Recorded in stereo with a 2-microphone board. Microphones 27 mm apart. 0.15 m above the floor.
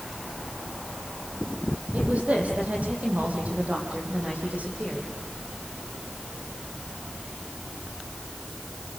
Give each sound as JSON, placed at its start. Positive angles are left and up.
{"t": 1.9, "sound": "a woman speaking", "side_deg": -75, "distance_m": 6.5}